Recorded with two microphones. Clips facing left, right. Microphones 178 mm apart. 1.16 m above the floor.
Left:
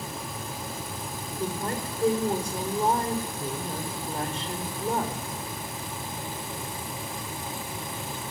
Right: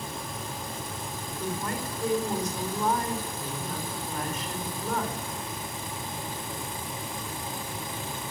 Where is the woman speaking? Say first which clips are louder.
Left 2 dB; 30° left (ahead or behind), 4.5 m.